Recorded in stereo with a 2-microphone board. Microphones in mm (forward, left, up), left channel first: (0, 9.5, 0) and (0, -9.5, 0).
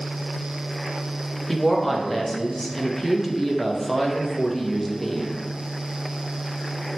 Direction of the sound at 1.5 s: 5° left (ahead or behind).